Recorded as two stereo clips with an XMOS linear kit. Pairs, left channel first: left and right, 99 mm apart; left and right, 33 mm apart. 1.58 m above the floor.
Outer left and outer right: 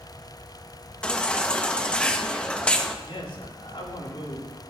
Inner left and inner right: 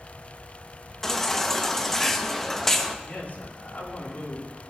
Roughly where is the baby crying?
Centre.